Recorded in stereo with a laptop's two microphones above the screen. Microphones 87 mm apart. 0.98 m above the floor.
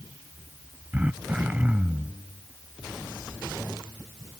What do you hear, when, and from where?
0.9 s throat clearing: 20° right (ahead or behind)